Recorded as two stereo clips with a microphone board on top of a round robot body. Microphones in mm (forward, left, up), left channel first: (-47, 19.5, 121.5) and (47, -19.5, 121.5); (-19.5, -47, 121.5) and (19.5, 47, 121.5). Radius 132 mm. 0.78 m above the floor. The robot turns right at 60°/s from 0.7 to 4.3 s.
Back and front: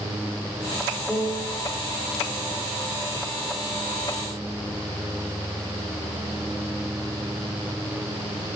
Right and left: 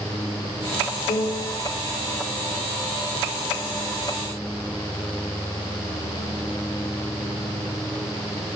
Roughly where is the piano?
Right.